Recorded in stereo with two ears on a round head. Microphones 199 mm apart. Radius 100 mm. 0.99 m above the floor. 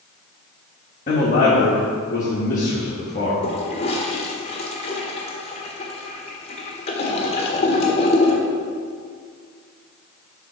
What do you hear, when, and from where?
1.1 s a man speaking: 35° left (ahead or behind), 1.3 m
3.4 s a toilet flushing: 25° left (ahead or behind), 1.2 m